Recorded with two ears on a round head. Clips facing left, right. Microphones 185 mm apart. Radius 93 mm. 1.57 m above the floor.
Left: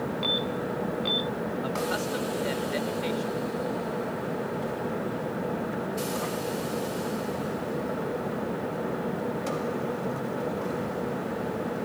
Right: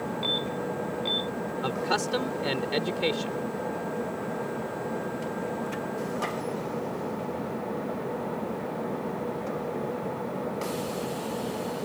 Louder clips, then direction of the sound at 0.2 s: Left 1 dB; 5° left (ahead or behind).